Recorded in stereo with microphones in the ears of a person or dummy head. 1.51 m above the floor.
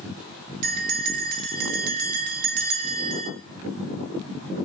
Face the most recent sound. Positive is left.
turn(degrees=-50)  # may be behind; listen again after turning